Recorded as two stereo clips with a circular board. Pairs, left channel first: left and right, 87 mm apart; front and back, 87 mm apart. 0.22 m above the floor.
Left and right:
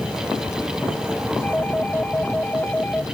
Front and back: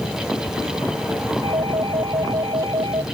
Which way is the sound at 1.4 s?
160° left.